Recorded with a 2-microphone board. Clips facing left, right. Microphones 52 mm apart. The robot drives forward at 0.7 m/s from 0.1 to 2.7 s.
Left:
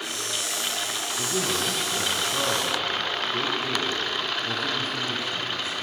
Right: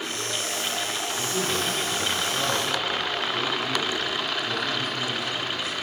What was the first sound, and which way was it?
A man speaking, 40° left (ahead or behind).